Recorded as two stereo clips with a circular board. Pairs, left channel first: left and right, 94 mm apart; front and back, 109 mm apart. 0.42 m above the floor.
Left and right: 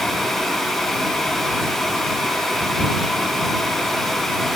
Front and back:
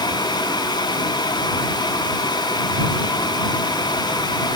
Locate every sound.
Only background noise.